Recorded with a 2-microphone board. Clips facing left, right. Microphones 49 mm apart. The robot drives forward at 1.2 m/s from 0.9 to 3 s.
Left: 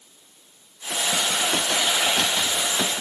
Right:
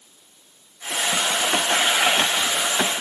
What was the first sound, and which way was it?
Only background noise.